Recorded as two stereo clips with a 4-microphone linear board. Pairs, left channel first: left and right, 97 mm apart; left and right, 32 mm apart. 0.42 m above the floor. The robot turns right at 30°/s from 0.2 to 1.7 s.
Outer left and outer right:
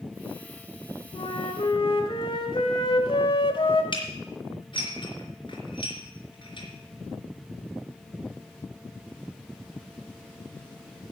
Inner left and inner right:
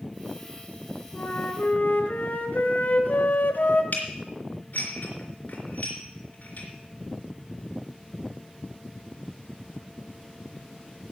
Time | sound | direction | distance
1.1 | a flute | 60° left (ahead or behind) | 1.6 m
3.9 | dishes clattering | 55° left (ahead or behind) | 3.5 m